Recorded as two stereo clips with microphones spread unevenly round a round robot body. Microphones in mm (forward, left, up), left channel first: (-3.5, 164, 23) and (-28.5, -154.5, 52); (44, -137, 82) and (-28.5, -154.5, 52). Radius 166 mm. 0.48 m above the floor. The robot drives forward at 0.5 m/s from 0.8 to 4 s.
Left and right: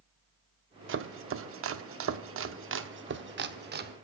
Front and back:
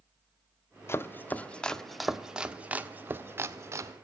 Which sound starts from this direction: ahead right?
Chopping, at 0.9 s.